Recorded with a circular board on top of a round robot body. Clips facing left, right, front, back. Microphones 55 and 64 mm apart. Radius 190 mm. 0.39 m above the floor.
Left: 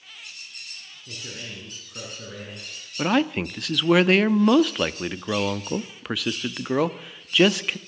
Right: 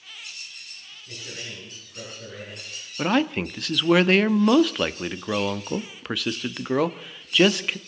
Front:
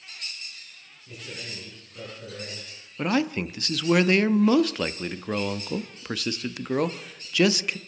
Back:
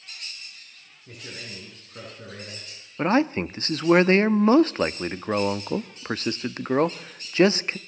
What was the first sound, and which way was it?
A man speaking, 140° left.